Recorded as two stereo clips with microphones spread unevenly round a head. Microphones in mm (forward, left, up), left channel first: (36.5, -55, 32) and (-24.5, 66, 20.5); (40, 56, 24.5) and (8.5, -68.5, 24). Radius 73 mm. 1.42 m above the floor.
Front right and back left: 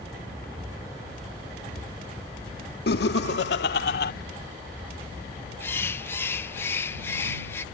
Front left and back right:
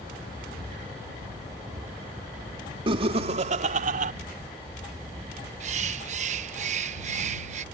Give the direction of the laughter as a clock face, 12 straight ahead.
2 o'clock.